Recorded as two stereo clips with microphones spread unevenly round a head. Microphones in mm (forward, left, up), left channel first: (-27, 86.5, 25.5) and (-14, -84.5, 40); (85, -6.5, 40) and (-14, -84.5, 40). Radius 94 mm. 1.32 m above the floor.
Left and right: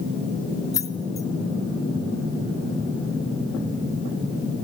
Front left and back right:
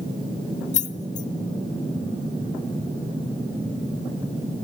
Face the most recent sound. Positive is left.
turn(degrees=20)